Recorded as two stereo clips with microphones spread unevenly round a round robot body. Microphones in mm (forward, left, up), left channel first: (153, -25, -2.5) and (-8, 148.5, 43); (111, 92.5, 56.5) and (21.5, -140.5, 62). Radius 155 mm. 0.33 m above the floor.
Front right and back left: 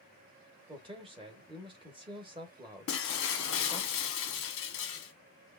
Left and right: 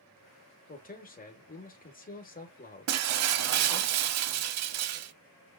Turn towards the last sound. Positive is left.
turn(degrees=-90)